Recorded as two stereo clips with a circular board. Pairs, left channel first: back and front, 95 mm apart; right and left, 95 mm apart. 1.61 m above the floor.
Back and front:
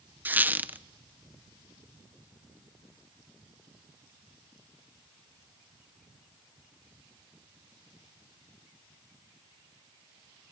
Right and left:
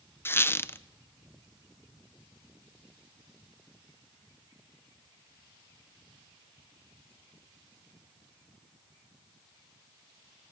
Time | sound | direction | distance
0.2 | a squeak | 50° right | 0.6 m